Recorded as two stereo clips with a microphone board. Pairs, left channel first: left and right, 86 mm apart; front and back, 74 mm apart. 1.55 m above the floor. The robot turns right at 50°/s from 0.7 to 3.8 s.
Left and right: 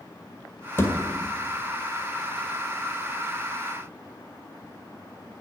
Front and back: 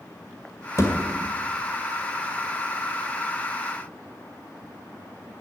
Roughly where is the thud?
Ahead left.